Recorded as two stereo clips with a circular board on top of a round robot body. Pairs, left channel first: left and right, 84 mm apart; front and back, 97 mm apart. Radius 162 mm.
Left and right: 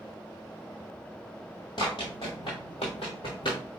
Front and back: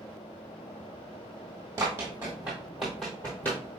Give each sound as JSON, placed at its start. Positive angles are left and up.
{"t": 1.8, "sound": "running footsteps", "azimuth_deg": 120, "distance_m": 1.5}